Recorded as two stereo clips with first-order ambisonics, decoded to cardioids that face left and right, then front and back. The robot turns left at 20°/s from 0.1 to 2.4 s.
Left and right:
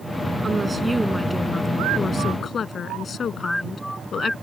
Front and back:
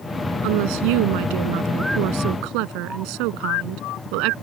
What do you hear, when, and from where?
0.4 s a woman speaking: 165° right; by 4.3 s 155° left